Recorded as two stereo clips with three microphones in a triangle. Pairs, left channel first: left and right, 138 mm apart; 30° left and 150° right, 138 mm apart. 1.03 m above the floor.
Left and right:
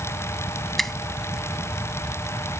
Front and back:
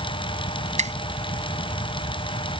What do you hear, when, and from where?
0.8 s a finger snap: straight behind